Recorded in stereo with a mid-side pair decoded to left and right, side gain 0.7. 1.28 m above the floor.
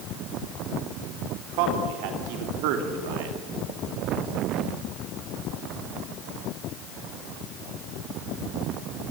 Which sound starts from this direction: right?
A man speaking, at 1.4 s.